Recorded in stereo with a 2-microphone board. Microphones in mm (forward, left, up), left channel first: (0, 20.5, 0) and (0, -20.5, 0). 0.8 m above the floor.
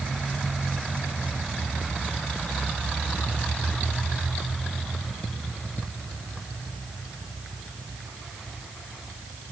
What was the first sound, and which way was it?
Only background noise.